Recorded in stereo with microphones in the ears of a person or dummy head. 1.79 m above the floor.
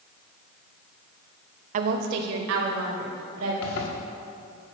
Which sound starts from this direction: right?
A woman speaking, at 1.7 s.